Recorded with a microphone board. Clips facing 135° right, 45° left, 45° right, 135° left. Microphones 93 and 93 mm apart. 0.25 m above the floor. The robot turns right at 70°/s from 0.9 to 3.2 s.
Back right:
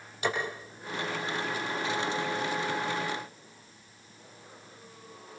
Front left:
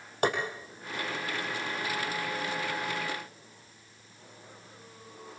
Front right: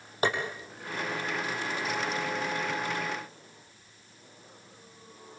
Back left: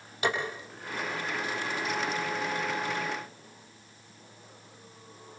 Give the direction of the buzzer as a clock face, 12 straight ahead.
No buzzer in this recording.